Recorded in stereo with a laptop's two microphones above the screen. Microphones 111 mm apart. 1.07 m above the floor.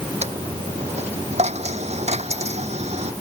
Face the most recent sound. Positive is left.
turn(degrees=-85)